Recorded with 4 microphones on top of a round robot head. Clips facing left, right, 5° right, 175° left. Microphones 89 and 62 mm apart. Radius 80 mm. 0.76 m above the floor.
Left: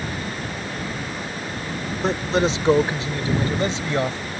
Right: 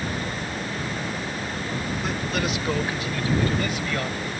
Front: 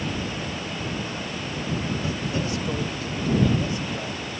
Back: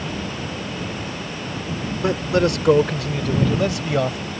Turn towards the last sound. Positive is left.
turn(degrees=155)